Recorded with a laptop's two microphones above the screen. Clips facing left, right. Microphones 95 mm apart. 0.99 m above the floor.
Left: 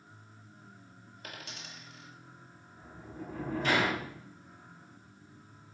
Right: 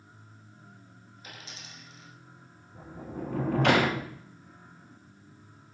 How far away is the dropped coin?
About 1.6 m.